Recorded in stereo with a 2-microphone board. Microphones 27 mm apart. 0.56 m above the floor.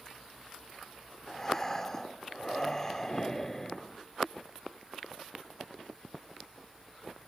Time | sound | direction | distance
1.3 | breathing | 15° left (ahead or behind) | 0.8 m